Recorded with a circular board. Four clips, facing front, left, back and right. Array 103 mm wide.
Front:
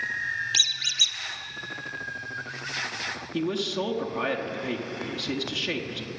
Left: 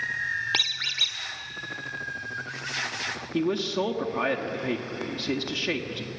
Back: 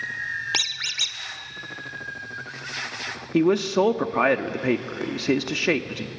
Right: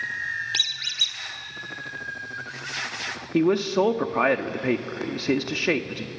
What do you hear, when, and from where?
0.5 s a squeak: 140° left, 1.2 m
3.3 s a man speaking: 145° right, 1.1 m